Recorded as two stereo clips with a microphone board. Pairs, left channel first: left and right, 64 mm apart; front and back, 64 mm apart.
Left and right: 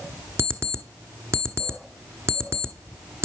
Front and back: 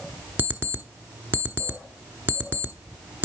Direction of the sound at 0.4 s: 125° right.